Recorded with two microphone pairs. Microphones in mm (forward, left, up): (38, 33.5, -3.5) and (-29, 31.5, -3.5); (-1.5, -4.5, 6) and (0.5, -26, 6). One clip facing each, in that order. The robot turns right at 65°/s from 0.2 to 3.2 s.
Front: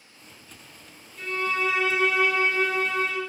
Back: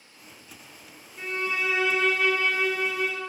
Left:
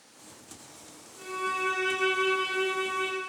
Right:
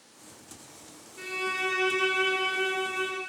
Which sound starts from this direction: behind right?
A violin, at 1.2 s.